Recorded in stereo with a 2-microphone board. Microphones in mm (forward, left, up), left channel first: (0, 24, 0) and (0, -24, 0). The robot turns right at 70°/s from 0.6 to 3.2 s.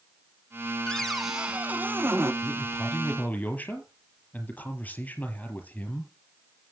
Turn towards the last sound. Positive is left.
turn(degrees=35)